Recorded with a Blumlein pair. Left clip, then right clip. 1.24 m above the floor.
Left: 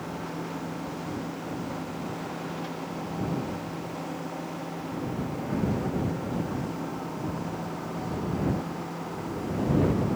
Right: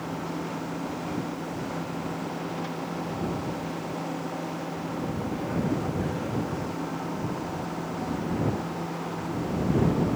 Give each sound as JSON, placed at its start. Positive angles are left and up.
{"t": 0.0, "sound": "a machine running", "azimuth_deg": -5}